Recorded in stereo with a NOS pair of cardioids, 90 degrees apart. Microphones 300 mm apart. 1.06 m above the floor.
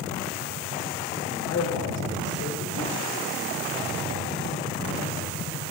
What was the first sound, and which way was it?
A man speaking, 65° left.